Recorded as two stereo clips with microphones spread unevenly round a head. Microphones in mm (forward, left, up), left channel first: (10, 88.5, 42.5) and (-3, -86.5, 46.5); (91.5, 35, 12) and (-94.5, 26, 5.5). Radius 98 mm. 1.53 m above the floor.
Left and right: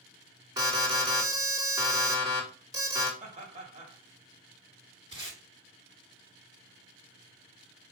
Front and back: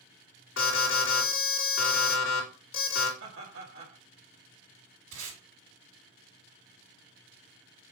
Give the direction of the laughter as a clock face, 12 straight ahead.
5 o'clock.